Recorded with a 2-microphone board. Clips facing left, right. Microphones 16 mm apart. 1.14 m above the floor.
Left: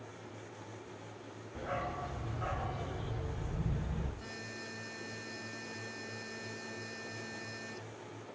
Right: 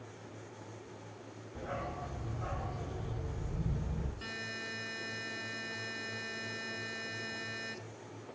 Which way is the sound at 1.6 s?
25° left (ahead or behind).